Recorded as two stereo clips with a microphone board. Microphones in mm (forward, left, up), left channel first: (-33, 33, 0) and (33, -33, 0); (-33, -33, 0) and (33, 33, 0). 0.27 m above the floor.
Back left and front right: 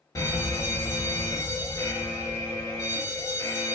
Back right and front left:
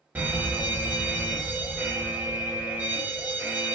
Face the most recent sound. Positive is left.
turn(degrees=105)